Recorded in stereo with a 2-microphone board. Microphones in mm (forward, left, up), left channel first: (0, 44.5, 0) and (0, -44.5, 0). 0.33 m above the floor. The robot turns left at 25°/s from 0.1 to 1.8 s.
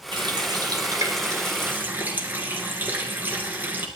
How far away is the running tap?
About 3 m.